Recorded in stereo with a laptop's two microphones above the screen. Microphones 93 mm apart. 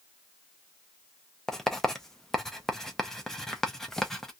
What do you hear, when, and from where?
1.5 s writing: 5° left (ahead or behind), 0.6 m